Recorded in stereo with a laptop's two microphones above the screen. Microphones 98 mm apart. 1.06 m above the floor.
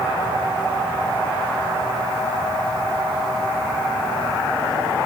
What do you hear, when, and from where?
Only background noise.